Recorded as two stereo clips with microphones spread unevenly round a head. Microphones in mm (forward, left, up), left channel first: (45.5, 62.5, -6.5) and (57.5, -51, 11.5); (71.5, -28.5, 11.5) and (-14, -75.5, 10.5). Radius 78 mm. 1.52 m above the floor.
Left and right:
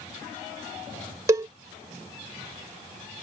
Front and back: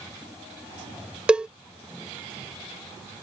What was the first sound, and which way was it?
A cowbell, 75° right.